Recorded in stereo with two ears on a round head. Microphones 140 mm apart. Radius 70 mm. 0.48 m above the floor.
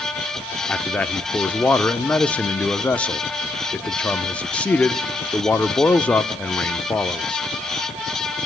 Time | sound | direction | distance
0.7 | a man speaking | 10° left (ahead or behind) | 0.8 m